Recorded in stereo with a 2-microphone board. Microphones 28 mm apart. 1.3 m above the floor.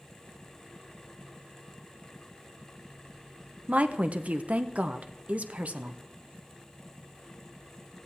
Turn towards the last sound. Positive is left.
turn(degrees=-55)  # may be behind; listen again after turning